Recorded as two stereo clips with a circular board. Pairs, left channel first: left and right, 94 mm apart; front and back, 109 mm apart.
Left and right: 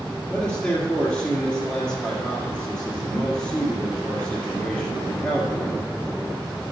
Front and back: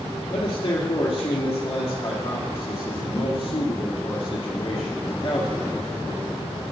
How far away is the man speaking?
About 2.0 m.